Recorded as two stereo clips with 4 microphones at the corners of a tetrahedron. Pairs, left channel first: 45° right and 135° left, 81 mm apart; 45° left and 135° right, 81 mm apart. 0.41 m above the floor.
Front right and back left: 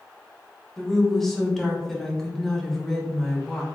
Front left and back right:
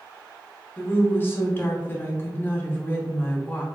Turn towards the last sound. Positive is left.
turn(degrees=35)